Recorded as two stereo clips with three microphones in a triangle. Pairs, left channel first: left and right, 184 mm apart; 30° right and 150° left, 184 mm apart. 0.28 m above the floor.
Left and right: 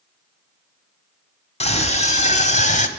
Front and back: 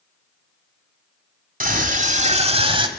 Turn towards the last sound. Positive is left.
turn(degrees=105)